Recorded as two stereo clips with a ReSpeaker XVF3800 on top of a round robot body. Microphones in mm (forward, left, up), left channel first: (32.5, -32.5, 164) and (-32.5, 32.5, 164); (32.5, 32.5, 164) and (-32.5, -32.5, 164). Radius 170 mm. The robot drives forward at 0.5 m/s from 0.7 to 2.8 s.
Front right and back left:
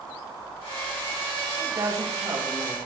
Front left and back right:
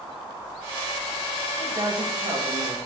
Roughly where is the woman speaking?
Behind.